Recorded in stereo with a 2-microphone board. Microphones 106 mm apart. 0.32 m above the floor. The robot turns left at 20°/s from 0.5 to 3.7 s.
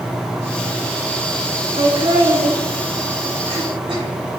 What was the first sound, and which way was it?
Laughter, 70° right (ahead or behind).